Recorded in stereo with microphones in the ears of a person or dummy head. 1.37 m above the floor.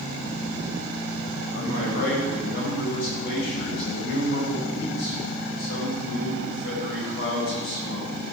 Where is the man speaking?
60° left (ahead or behind), 8 m.